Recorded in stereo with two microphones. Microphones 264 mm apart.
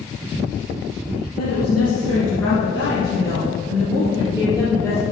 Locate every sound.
1.4 s a woman speaking: 70° left (ahead or behind), 4 m; by 5.0 s 10° left (ahead or behind), 5 m